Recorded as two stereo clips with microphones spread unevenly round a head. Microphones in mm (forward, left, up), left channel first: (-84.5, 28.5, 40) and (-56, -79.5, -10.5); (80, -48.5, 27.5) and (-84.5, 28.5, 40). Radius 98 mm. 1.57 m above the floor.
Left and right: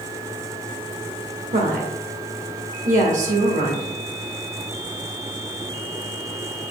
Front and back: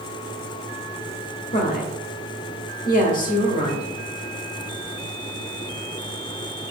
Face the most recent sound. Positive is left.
turn(degrees=-75)